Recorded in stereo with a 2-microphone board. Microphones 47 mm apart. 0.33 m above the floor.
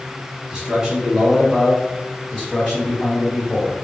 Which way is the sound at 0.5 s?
20° right (ahead or behind).